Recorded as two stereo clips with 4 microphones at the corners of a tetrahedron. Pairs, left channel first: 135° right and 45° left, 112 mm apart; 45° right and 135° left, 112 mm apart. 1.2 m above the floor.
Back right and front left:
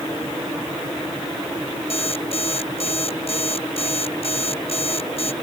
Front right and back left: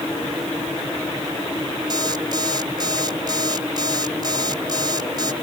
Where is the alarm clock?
170° right.